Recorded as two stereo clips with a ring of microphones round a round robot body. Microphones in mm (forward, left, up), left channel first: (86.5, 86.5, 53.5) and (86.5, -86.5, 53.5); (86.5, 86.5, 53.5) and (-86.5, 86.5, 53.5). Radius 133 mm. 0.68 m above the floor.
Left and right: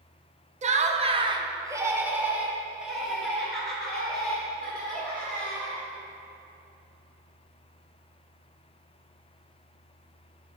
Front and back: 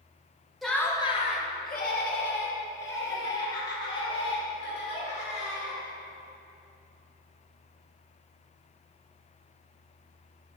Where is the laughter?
90° right, 0.8 m; by 5.8 s 5° left, 4 m.